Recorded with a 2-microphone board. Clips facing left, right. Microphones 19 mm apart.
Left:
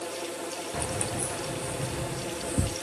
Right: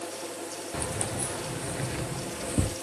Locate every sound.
0.7 s keys jangling: 10° right (ahead or behind), 1.8 m; by 2.8 s 65° right (ahead or behind), 2.5 m